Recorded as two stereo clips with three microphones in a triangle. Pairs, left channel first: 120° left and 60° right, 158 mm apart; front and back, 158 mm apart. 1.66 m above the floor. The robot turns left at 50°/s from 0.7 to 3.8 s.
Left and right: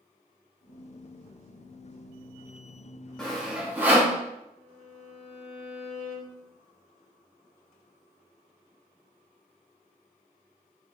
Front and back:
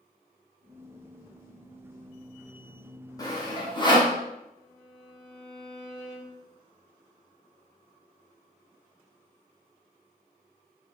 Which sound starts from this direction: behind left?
A violin, at 4.6 s.